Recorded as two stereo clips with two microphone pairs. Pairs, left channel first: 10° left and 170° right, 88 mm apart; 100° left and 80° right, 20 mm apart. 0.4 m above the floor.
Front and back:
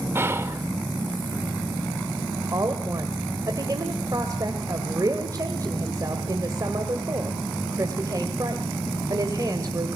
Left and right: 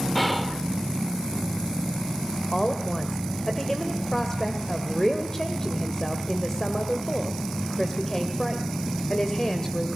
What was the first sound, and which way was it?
Whispering, 170° right.